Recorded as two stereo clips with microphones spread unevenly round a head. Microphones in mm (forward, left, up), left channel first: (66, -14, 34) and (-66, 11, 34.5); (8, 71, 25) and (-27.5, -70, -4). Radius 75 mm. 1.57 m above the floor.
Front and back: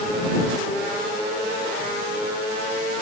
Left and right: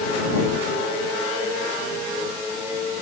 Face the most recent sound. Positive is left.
No sound to turn to.